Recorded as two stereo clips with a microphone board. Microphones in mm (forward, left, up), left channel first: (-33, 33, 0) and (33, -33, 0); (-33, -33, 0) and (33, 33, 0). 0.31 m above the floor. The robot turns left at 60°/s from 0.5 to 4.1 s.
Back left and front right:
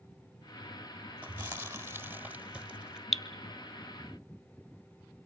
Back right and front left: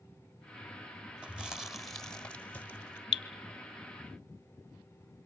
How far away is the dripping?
About 0.7 m.